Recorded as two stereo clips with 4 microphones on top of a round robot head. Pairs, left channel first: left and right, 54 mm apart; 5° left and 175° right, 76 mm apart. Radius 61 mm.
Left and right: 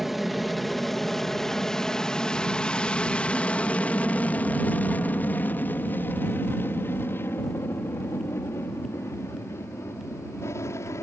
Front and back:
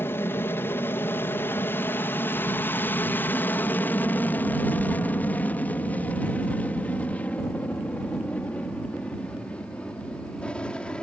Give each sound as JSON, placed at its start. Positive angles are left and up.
{"t": 0.0, "sound": "an aircraft", "azimuth_deg": -5}